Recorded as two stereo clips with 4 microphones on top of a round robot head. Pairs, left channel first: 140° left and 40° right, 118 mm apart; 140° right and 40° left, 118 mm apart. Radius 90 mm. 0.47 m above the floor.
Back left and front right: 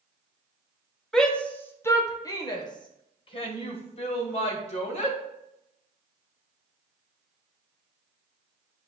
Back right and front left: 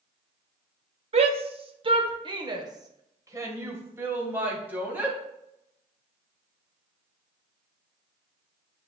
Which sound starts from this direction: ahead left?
A shout, at 1.1 s.